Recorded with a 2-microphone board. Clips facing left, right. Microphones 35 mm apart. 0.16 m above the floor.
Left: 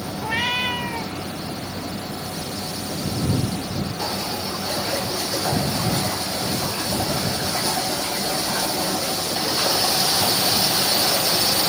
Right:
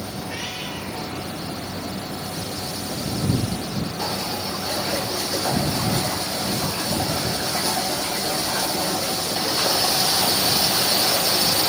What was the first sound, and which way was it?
A cat meowing, 45° left (ahead or behind).